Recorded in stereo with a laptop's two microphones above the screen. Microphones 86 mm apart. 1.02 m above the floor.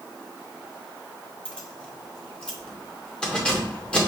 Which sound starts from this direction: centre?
Keys jangling, at 1.4 s.